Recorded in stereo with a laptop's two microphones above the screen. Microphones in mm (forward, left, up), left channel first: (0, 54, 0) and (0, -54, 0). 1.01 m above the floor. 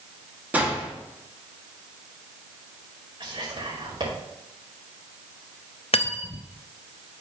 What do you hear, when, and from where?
0.5 s a gunshot: 15° right (ahead or behind), 1.6 m
3.2 s whispering: 50° right (ahead or behind), 2.5 m
5.9 s cutlery clinking: 65° left (ahead or behind), 0.5 m